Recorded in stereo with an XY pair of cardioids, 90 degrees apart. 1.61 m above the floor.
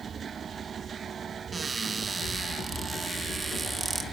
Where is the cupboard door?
35° right, 3 m.